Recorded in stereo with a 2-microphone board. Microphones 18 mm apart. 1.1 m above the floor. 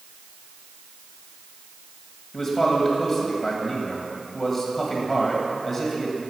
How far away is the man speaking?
About 1.8 m.